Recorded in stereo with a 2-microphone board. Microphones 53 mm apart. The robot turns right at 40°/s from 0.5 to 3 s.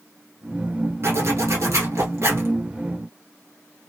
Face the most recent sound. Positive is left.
turn(degrees=-40)